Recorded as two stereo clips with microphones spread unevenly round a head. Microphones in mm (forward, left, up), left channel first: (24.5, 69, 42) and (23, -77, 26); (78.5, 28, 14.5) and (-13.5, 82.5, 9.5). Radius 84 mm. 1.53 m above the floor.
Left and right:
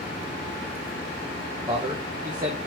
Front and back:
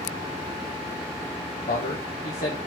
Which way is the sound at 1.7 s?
25° right.